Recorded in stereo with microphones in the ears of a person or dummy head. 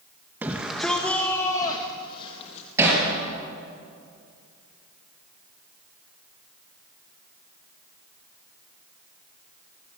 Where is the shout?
10° right (ahead or behind), 1.2 m; by 2.7 s 35° left (ahead or behind), 1.6 m.